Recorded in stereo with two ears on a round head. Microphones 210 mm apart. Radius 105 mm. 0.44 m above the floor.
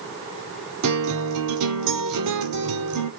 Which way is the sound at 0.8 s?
85° right.